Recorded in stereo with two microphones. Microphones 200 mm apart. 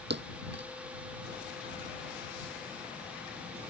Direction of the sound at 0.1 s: 60° right (ahead or behind).